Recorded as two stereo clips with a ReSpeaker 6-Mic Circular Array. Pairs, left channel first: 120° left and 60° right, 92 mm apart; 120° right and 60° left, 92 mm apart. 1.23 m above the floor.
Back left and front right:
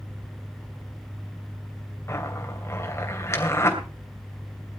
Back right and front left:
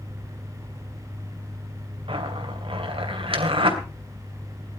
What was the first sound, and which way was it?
A zipper, 60° left.